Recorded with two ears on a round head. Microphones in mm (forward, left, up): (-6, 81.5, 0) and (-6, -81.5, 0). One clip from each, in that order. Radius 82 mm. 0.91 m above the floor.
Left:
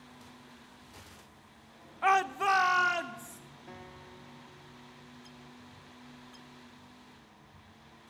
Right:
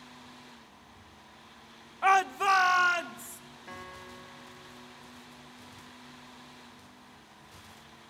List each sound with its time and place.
2.0 s a shout: 15° right (ahead or behind), 0.7 m; by 3.4 s 20° right (ahead or behind), 2.5 m
3.7 s a guitar: 40° right (ahead or behind), 1.5 m